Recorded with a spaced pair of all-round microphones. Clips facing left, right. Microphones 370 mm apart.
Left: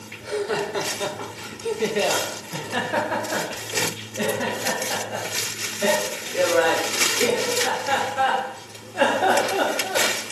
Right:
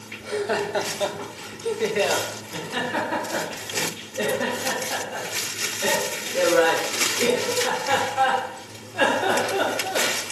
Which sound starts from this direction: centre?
Laughter, at 0.2 s.